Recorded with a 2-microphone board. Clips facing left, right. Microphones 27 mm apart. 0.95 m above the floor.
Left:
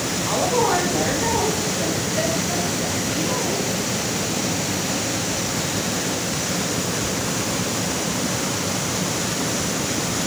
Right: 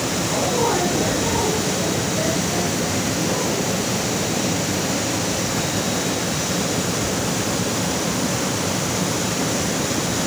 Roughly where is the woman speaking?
Left.